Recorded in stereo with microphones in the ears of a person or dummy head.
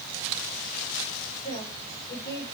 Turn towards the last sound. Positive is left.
turn(degrees=35)  # may be behind; listen again after turning